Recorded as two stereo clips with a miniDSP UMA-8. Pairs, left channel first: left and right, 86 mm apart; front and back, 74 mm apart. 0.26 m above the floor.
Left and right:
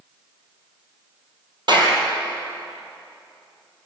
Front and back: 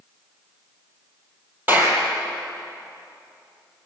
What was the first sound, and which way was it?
A clap, 120° right.